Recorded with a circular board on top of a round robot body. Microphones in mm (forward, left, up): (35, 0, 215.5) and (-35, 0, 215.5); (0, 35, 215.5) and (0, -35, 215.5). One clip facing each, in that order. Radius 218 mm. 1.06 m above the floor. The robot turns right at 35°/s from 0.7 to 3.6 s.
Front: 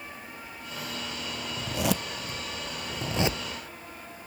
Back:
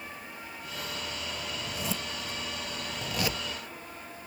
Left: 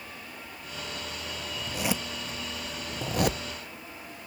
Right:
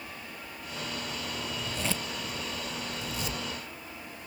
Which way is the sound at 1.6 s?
5° left.